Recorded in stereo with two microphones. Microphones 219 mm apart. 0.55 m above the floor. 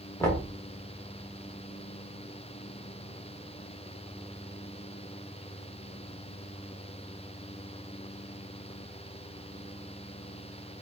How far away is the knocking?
About 1.1 m.